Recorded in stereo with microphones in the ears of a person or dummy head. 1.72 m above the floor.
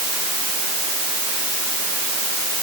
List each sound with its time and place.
Only background noise.